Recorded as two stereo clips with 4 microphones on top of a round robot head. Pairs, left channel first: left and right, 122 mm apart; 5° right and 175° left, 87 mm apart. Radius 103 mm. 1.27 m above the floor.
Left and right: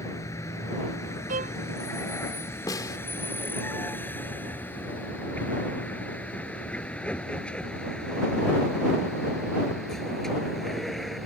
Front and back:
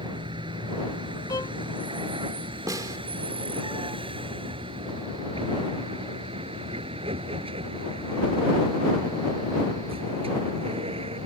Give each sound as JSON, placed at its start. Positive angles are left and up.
{"t": 0.0, "sound": "a vehicle", "azimuth_deg": 155}
{"t": 1.3, "sound": "a violin", "azimuth_deg": -65}
{"t": 2.7, "sound": "a snare drum", "azimuth_deg": 140}